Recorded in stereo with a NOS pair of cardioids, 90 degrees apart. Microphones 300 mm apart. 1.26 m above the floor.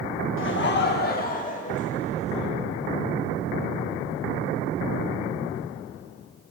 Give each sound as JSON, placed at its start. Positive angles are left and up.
{"t": 0.4, "sound": "laughter", "azimuth_deg": 45, "distance_m": 1.1}